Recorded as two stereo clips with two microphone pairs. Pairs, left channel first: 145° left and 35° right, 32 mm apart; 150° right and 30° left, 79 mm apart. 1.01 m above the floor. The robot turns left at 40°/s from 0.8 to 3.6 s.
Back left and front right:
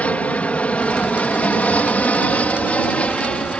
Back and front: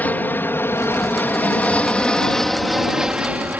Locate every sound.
0.0 s an aircraft: 150° left; by 3.6 s 90° left